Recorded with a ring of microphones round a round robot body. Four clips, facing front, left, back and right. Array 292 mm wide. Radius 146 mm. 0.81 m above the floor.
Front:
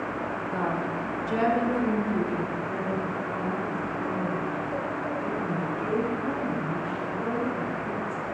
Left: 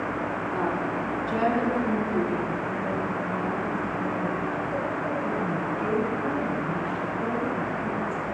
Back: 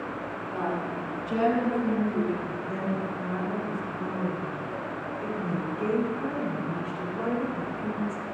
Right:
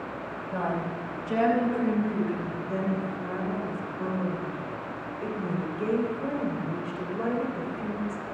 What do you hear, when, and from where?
0.5 s a woman speaking: 75° right, 4 m
2.7 s a woman speaking: 110° right, 4 m